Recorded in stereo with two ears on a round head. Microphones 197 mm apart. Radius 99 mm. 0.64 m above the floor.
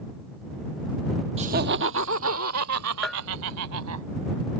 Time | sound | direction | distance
1.4 | laughter | 25° right (ahead or behind) | ?
3.0 | a bell | centre (ahead or behind) | ?